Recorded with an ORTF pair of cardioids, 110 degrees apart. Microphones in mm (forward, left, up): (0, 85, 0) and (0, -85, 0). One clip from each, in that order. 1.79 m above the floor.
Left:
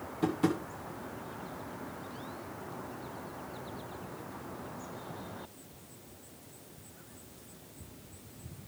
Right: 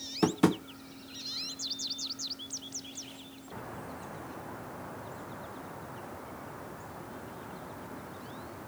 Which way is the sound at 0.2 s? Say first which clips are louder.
Right 4 dB; 40° right.